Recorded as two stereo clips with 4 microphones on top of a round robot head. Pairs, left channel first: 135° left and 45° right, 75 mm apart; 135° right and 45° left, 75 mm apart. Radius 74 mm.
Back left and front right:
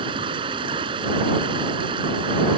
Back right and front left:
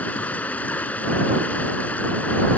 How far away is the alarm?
I don't hear an alarm.